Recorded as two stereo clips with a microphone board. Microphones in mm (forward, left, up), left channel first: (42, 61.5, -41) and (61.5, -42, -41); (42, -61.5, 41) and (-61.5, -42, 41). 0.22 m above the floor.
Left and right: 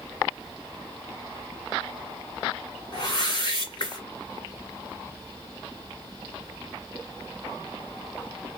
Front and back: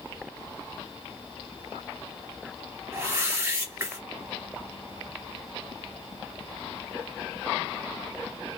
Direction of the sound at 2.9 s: 115° left.